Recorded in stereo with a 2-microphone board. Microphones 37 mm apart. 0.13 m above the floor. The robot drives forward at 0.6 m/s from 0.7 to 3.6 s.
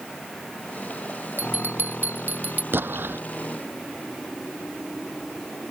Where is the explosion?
70° right (ahead or behind); by 3.2 s 75° right (ahead or behind).